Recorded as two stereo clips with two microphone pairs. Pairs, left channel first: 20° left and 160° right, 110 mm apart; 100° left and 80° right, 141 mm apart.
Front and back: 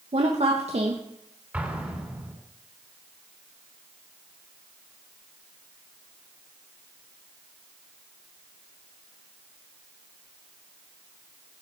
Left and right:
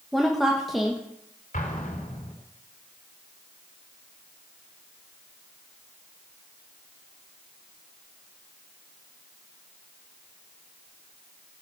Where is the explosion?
120° left, 2.5 m.